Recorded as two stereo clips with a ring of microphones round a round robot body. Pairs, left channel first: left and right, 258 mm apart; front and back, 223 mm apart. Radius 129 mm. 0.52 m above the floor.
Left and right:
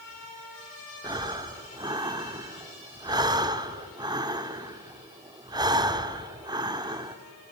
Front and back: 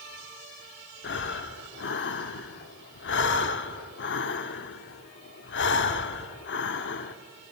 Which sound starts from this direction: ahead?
Breathing, at 1.0 s.